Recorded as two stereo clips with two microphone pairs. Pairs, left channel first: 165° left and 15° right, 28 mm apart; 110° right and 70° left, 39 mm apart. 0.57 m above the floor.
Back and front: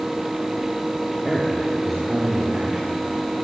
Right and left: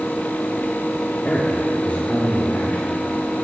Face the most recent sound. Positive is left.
turn(degrees=-75)